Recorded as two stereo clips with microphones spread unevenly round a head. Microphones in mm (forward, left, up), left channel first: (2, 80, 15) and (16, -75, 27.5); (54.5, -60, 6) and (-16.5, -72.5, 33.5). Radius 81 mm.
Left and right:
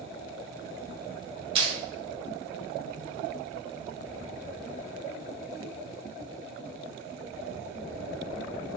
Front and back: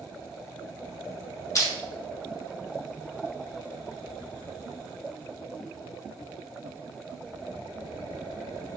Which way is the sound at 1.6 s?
30° right.